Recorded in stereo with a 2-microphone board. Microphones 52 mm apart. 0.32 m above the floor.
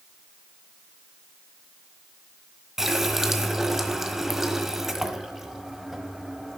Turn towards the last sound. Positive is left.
turn(degrees=-10)  # may be behind; listen again after turning